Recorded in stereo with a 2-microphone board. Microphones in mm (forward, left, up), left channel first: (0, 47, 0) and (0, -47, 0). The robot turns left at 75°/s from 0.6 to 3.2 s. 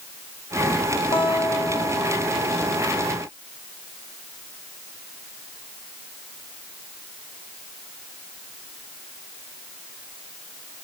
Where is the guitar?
90° left, 2 m; by 3.0 s 55° right, 2 m.